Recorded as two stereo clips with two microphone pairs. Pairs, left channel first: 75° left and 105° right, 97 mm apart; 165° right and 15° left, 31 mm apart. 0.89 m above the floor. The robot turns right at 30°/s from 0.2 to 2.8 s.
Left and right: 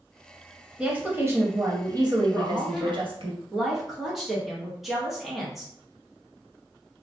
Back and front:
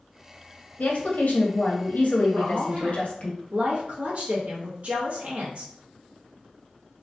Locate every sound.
0.8 s a woman speaking: 175° left, 0.8 m; by 3.3 s 125° right, 0.8 m
2.3 s a woman speaking: 30° right, 1.1 m; by 5.7 s 15° right, 1.1 m